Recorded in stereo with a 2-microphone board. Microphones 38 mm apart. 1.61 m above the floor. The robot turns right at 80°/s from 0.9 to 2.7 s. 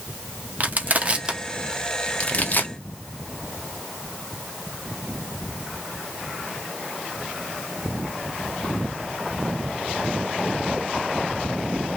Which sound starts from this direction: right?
Crushing, at 0.6 s.